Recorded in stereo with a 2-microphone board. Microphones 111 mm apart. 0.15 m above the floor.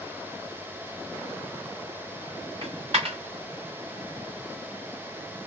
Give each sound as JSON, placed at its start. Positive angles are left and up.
{"t": 2.6, "sound": "a dropped coin", "side_deg": -55, "distance_m": 1.9}